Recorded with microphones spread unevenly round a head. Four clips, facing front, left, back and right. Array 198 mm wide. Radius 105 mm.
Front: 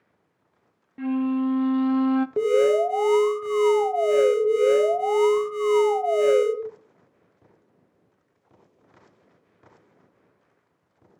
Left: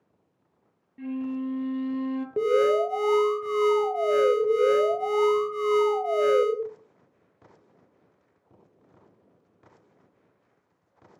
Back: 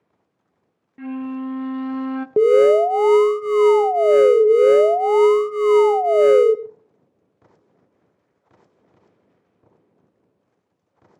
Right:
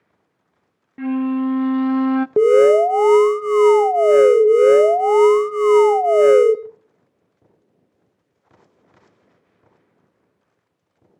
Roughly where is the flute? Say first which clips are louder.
Right 11 dB, front 4 dB; ahead right.